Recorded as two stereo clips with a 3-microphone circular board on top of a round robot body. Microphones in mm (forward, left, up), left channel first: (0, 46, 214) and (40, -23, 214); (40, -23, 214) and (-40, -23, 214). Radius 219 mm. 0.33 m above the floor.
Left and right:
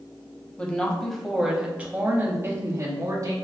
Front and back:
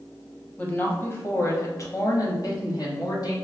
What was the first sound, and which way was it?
A woman speaking, 55° left.